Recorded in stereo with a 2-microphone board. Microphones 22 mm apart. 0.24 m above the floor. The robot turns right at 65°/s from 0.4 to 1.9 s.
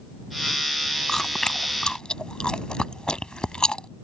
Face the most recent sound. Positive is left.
turn(degrees=50)  # may be behind; listen again after turning